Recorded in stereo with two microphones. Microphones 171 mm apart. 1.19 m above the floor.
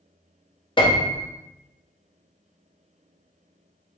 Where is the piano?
30° left (ahead or behind), 0.7 m.